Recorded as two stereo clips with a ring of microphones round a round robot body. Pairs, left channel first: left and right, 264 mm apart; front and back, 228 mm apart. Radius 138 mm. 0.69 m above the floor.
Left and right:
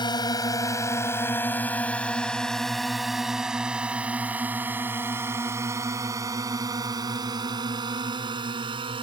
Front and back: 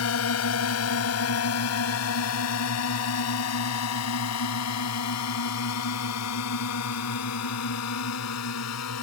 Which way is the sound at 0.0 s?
15° left.